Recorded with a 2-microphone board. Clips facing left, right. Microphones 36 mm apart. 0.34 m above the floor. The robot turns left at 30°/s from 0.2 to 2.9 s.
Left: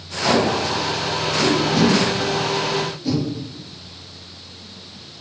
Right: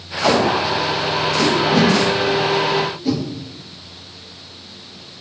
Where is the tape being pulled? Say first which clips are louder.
Right 2 dB; 80° right, 3.5 m; by 3.2 s 15° right (ahead or behind), 3.5 m.